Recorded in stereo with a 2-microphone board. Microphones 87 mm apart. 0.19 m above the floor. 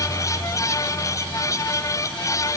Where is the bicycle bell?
I don't hear a bicycle bell.